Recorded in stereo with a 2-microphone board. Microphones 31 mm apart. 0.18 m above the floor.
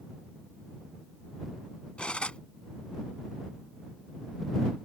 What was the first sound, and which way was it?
Cutlery clinking, 40° left (ahead or behind).